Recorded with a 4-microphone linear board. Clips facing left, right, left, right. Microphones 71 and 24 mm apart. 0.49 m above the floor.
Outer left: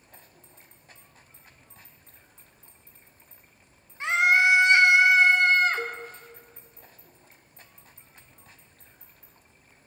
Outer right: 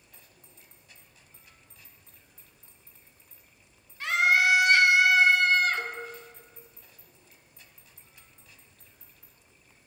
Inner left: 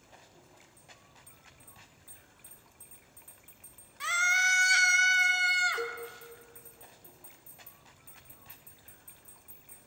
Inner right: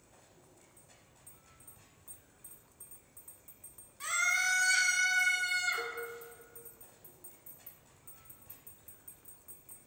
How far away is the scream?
About 0.9 m.